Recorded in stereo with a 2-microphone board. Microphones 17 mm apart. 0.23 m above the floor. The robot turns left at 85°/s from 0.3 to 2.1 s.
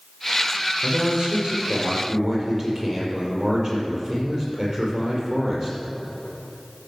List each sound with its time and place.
0.8 s a man speaking: 35° right, 4.5 m; by 5.8 s 145° right, 4.5 m